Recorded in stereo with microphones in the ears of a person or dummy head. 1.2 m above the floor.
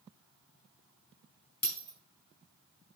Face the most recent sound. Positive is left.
turn(degrees=50)  # may be behind; listen again after turning